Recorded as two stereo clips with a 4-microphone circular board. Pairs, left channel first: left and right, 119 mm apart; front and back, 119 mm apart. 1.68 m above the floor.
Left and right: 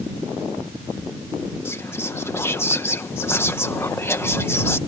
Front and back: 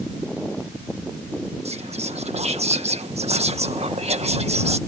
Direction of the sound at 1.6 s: 160° left.